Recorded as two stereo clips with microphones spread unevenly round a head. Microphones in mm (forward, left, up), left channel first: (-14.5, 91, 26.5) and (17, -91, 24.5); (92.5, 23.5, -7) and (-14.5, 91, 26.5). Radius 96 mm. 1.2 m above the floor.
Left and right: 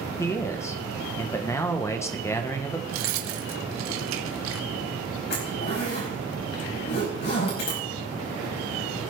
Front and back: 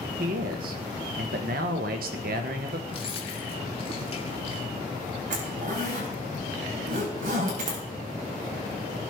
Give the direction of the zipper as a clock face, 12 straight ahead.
7 o'clock.